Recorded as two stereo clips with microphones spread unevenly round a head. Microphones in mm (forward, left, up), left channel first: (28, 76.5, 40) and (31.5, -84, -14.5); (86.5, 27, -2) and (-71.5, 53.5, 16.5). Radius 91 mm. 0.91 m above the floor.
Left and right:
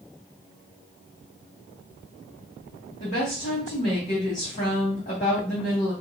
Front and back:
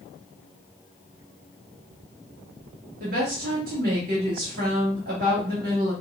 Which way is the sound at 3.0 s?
150° left.